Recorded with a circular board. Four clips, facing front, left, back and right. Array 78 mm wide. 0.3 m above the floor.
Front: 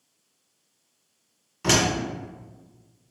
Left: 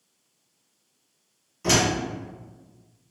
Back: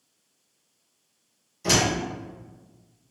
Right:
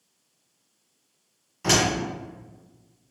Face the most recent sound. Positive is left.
turn(degrees=-25)